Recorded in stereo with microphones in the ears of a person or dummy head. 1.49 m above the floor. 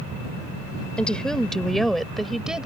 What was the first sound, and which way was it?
A woman speaking, 5° left (ahead or behind).